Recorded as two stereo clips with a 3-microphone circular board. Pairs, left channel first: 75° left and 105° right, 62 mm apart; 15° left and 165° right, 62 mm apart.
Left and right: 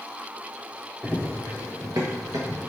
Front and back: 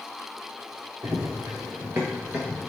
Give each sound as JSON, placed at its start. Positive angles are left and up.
{"t": 1.0, "sound": "running footsteps", "azimuth_deg": -170, "distance_m": 1.0}